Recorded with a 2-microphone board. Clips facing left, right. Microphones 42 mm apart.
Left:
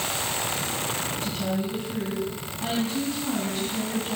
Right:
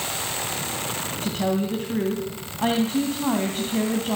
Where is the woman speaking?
55° right (ahead or behind), 2.5 m.